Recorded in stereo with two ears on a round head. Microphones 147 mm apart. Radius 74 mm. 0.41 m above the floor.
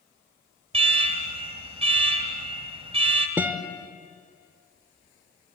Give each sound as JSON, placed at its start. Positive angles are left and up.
{"t": 0.7, "sound": "an alarm", "side_deg": -35, "distance_m": 1.6}
{"t": 3.4, "sound": "a guitar", "side_deg": -15, "distance_m": 1.4}